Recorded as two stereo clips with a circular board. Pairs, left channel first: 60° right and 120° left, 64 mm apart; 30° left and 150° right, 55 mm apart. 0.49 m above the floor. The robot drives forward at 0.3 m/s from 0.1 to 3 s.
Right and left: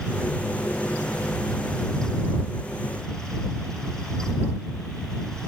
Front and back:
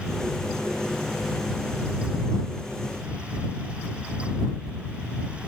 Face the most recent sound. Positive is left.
No sound to turn to.